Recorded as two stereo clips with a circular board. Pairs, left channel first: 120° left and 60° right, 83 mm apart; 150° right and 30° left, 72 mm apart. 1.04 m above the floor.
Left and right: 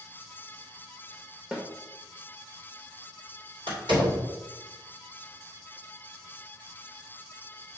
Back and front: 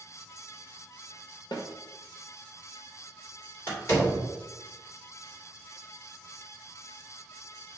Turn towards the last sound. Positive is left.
turn(degrees=-85)